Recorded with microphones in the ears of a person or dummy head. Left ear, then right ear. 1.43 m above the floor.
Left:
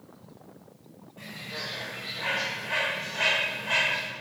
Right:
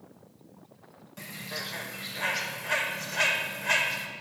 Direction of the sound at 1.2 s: 70° right (ahead or behind).